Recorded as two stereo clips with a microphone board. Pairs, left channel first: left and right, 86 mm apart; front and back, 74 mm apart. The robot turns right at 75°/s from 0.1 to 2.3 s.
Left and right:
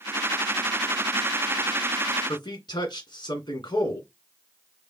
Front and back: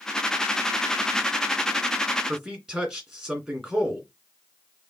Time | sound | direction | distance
2.3 | a man speaking | 95° left | 2 m